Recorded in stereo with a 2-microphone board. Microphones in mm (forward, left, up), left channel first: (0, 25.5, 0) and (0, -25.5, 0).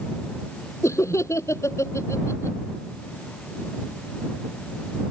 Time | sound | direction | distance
0.8 | laughter | 70° left (ahead or behind) | ?